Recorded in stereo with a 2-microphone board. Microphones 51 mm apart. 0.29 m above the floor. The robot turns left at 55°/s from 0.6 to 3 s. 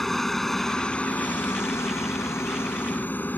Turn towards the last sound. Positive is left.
turn(degrees=40)